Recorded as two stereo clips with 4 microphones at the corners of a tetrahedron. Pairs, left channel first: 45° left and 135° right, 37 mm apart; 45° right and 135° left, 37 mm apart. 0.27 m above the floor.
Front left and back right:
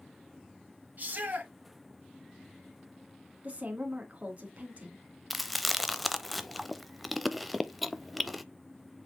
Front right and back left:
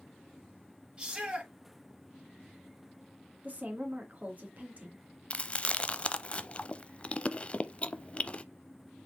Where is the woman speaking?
Straight behind, 2.5 m.